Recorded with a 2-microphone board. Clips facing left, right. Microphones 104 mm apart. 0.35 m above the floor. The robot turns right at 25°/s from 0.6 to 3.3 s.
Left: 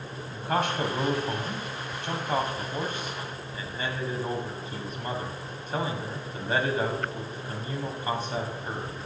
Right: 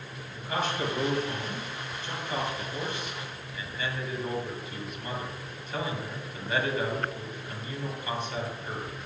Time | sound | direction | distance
0.3 | a man speaking | 75° left | 1.9 m